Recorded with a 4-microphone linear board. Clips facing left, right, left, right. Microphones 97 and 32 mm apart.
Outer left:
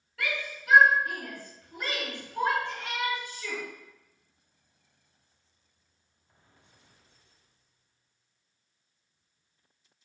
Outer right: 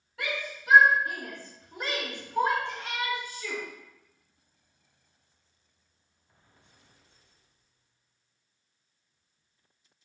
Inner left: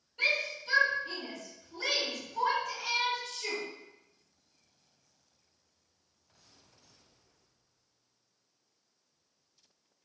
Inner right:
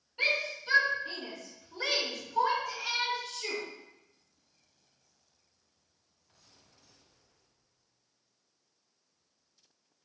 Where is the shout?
20° right (ahead or behind), 1.8 m; by 3.6 s 15° right (ahead or behind), 1.3 m.